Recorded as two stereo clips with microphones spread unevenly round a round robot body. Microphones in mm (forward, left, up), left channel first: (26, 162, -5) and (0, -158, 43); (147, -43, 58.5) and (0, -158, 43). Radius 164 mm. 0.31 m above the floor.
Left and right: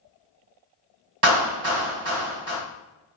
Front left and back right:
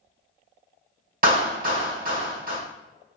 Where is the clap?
145° right, 1.7 m.